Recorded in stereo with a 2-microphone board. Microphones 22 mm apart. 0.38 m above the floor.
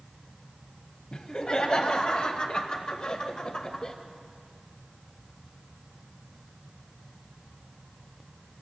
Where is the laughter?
40° left (ahead or behind), 1.8 m; by 4.0 s 45° left (ahead or behind), 1.3 m.